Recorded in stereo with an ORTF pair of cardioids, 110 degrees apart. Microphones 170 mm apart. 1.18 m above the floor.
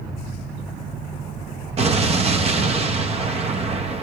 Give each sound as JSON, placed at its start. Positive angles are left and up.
{"t": 1.8, "sound": "an explosion", "azimuth_deg": -35, "distance_m": 0.9}